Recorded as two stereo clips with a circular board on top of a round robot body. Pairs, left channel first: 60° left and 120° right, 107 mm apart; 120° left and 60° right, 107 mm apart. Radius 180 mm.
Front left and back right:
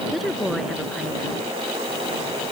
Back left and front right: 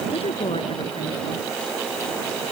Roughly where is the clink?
I don't hear a clink.